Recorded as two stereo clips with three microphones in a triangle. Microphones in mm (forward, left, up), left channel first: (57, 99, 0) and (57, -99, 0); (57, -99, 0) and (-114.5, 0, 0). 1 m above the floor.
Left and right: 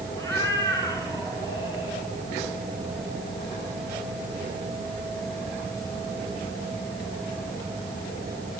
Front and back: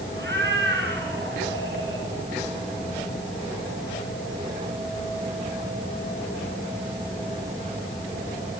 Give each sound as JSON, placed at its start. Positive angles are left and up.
{"t": 0.2, "sound": "a cat meowing", "azimuth_deg": 165, "distance_m": 6.5}